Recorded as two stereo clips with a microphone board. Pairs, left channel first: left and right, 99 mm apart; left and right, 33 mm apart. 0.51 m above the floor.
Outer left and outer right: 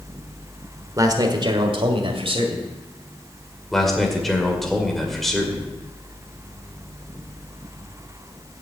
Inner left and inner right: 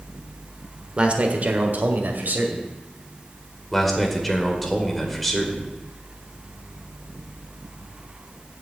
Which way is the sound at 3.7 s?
Centre (ahead or behind).